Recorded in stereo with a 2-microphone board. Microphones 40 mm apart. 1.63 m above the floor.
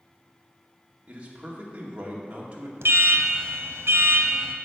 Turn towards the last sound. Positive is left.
turn(degrees=-80)